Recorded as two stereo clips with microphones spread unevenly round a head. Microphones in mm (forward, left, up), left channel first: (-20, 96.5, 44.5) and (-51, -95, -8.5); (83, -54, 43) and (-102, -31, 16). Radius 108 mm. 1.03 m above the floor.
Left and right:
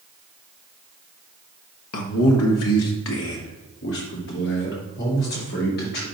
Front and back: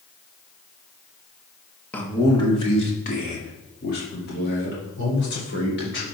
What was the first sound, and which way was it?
A man speaking, 80° left.